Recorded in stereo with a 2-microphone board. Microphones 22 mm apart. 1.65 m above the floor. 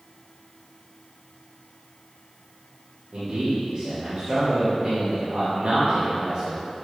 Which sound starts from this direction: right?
A man speaking, at 3.1 s.